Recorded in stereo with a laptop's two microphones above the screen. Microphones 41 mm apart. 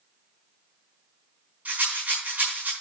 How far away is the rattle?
About 5 m.